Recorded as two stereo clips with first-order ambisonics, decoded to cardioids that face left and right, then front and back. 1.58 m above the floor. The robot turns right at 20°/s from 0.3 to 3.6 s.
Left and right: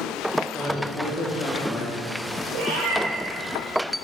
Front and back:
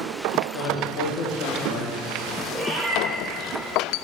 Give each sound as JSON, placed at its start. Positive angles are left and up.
{"t": 0.5, "sound": "a man speaking", "azimuth_deg": -10, "distance_m": 2.0}
{"t": 2.5, "sound": "a cat meowing", "azimuth_deg": -85, "distance_m": 2.0}